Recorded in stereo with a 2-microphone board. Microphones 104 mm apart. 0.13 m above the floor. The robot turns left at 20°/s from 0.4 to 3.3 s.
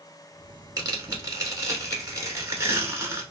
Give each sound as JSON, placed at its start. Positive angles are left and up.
{"t": 0.8, "sound": "tearing paper", "azimuth_deg": -85, "distance_m": 0.9}